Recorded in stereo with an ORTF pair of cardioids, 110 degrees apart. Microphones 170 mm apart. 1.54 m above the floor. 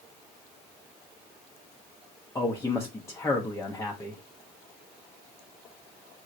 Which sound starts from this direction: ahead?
A man speaking, at 2.4 s.